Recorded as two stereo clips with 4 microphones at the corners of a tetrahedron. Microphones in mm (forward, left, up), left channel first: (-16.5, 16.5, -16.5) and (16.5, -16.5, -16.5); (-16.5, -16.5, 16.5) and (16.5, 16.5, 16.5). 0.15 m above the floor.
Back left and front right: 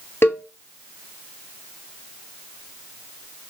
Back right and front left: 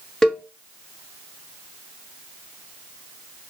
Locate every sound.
0.2 s a cowbell: 145° left, 1.1 m